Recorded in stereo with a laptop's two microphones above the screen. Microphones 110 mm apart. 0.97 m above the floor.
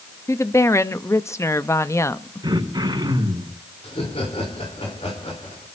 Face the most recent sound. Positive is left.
turn(degrees=75)  # may be behind; listen again after turning